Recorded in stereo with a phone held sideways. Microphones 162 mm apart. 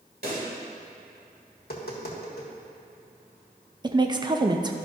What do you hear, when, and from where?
0.2 s a pop: 75° right (ahead or behind), 2.5 m
1.6 s tapping: 75° left (ahead or behind), 1.5 m
3.8 s a woman speaking: 25° right (ahead or behind), 0.6 m